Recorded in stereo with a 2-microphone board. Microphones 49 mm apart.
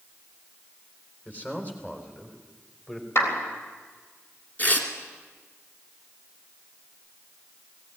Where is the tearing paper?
35° left (ahead or behind), 2.5 m.